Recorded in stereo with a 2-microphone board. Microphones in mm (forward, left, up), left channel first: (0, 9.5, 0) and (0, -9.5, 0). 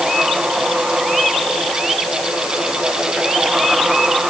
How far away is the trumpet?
No trumpet in this recording.